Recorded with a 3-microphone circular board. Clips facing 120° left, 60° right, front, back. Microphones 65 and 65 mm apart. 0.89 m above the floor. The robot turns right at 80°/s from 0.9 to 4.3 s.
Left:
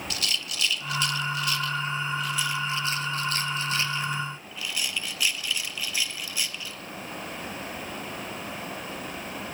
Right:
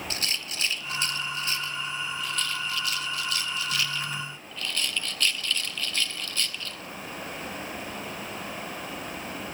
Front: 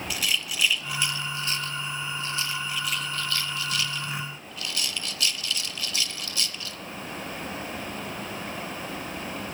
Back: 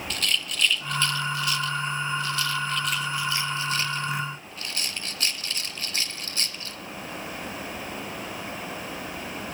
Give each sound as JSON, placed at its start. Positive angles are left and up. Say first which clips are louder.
{"t": 0.1, "sound": "a rattle", "louder": "left 1 dB, back 1 dB", "azimuth_deg": -75, "distance_m": 0.7}